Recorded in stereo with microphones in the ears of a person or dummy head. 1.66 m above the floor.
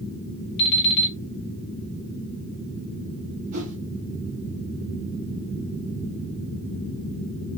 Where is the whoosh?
35° right (ahead or behind), 1.8 m.